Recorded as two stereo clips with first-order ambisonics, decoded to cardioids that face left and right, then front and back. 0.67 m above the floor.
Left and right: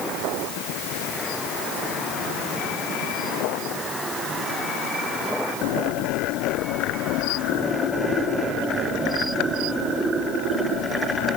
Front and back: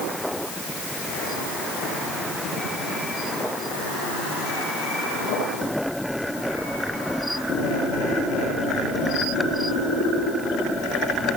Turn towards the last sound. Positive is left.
No sound to turn to.